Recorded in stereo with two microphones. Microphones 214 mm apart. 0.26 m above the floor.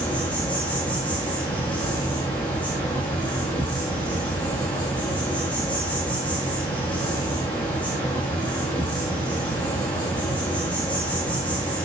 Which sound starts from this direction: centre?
An insect, at 0.0 s.